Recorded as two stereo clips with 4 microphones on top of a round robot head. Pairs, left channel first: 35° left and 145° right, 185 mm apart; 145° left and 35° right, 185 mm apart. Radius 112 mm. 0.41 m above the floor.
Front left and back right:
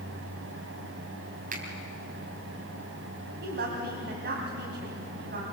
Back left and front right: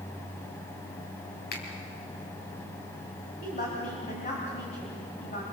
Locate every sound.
1.5 s a finger snap: 175° left, 3.5 m
3.4 s a woman speaking: 165° right, 3 m